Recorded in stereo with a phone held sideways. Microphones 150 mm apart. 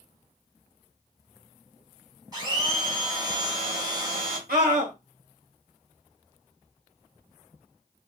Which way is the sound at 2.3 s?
25° right (ahead or behind).